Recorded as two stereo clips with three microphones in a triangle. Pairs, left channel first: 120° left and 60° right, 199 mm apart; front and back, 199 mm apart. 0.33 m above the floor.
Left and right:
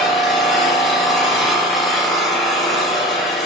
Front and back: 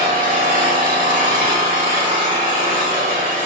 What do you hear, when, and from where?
0.0 s an engine running: 150° right, 1.6 m